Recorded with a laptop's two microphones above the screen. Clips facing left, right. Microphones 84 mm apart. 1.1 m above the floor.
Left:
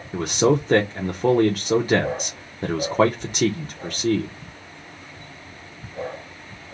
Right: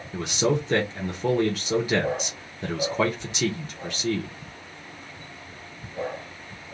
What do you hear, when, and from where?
0.1 s a man speaking: 40° left (ahead or behind), 0.8 m